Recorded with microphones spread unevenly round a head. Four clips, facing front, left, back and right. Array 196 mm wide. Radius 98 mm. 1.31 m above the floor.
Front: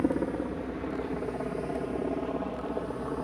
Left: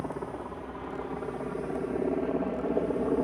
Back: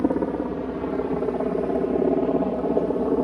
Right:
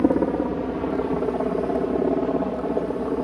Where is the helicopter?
120° right; by 3.2 s straight behind.